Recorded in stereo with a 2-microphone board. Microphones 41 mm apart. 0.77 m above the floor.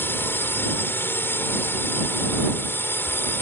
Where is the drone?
65° left (ahead or behind).